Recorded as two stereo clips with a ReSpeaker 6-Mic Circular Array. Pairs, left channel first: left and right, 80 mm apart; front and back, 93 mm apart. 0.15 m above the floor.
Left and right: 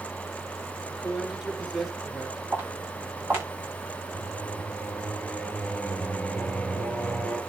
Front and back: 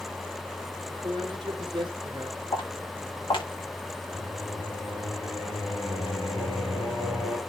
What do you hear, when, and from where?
0.9 s a man speaking: 175° right, 3 m
2.5 s footsteps: 30° right, 6.5 m
4.1 s singing: 10° left, 2.5 m